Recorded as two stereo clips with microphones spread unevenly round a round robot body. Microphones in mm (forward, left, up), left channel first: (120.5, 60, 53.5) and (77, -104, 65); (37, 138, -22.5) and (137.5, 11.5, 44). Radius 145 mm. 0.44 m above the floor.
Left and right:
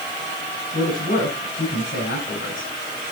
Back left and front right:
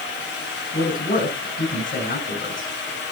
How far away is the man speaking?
About 5 m.